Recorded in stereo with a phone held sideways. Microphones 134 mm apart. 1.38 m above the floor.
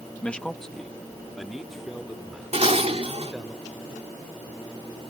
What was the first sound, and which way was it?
A man speaking, 10° left (ahead or behind).